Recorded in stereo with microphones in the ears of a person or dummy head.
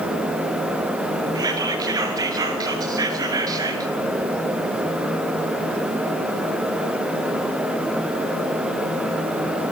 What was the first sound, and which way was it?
Whispering, 20° right (ahead or behind).